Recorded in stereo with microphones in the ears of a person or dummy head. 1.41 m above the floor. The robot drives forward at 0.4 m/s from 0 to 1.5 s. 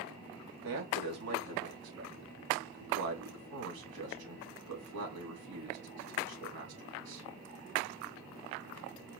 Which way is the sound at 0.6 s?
80° right.